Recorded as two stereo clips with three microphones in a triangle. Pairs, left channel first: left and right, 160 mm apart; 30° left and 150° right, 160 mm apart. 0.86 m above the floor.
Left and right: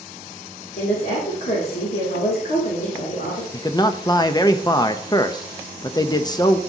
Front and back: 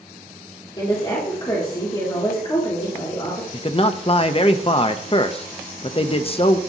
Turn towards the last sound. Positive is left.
turn(degrees=45)